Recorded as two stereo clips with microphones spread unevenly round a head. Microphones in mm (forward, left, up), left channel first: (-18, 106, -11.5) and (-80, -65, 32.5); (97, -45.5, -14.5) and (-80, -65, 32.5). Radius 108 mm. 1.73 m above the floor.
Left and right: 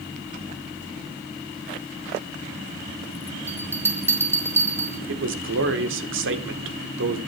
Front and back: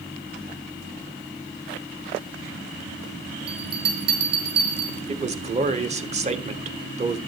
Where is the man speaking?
120° right, 1.4 m.